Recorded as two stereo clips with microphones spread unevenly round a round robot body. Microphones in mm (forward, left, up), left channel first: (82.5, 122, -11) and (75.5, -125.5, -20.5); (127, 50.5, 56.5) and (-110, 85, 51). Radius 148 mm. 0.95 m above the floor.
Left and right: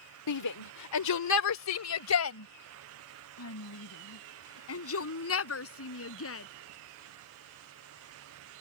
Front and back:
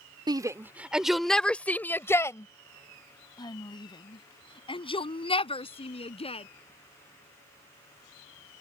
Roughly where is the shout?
Left.